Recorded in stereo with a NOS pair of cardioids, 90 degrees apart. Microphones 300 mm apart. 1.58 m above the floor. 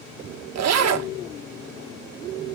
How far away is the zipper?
About 1.7 m.